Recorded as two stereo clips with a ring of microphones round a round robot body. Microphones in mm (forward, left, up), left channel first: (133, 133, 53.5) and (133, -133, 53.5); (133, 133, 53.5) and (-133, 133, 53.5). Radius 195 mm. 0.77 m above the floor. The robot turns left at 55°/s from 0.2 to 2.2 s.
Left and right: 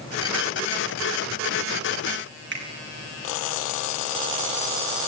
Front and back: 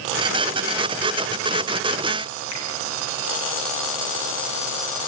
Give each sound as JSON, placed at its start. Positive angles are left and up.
{"t": 2.5, "sound": "a finger snap", "azimuth_deg": -45, "distance_m": 5.5}